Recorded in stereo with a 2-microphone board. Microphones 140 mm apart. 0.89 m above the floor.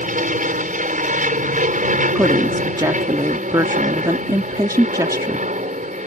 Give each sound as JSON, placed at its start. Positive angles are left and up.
{"t": 0.0, "sound": "an aircraft", "side_deg": -65}
{"t": 2.1, "sound": "a woman speaking", "side_deg": -25}